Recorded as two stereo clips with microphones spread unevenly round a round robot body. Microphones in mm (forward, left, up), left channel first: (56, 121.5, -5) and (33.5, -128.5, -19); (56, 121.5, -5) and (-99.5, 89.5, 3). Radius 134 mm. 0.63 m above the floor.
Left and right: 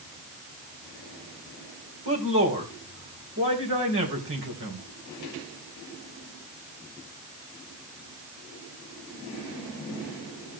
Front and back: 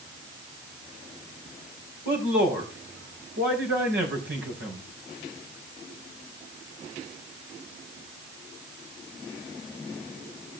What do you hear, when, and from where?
2.0 s a man speaking: 140° right, 3.5 m